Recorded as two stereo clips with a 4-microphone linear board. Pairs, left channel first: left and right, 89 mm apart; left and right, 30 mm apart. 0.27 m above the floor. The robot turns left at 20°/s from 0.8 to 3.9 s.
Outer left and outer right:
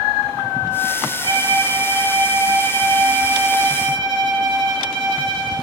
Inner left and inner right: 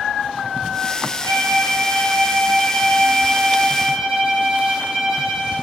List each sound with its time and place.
1.2 s a violin: 20° left (ahead or behind), 1.4 m; by 5.5 s centre (ahead or behind), 1.4 m